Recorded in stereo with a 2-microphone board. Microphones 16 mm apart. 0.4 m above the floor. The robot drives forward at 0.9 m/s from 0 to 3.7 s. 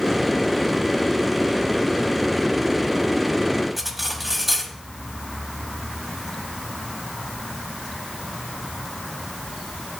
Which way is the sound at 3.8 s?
5° right (ahead or behind).